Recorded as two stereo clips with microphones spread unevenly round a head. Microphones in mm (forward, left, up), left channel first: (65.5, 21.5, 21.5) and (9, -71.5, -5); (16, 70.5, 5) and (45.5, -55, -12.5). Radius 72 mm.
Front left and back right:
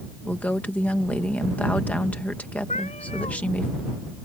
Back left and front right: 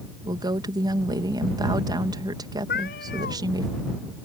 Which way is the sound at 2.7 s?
110° left.